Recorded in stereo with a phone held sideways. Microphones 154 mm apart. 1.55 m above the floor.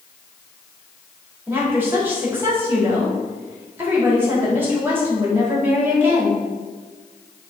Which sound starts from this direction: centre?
A woman speaking, at 1.5 s.